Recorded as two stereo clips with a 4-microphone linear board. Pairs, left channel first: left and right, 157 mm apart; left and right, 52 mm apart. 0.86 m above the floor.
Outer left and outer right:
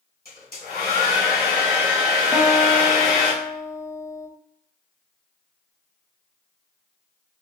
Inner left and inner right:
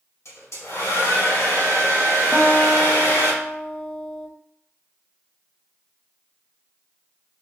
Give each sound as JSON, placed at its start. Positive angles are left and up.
{"t": 0.2, "sound": "a hair dryer", "side_deg": 70, "distance_m": 2.0}
{"t": 2.3, "sound": "a guitar", "side_deg": 20, "distance_m": 0.7}